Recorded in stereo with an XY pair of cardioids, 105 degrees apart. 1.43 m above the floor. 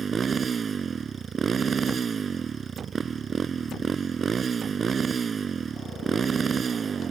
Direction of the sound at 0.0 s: 40° right.